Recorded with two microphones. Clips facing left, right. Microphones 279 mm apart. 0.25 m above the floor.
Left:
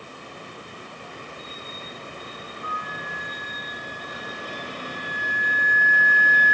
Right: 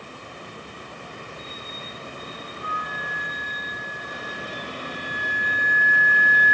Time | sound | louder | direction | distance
2.6 | a flute | right 1 dB | centre (ahead or behind) | 6.5 m